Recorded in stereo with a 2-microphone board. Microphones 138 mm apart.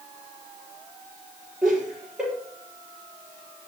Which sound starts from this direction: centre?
Laughter, at 1.6 s.